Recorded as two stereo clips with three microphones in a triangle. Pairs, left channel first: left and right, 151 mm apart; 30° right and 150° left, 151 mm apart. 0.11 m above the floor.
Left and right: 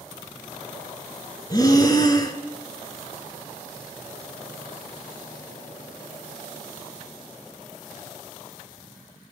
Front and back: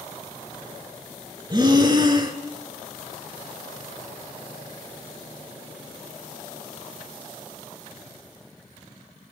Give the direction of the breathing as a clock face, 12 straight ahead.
8 o'clock.